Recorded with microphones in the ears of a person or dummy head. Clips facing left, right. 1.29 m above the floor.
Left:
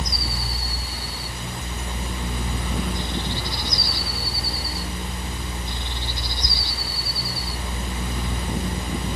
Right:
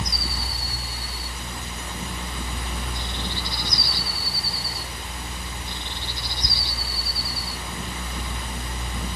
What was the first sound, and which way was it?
Only background noise.